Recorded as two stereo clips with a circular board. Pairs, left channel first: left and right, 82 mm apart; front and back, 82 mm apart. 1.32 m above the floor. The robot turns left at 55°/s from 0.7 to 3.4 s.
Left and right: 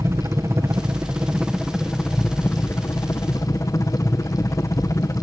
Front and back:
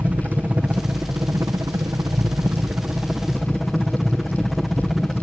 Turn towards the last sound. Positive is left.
turn(degrees=95)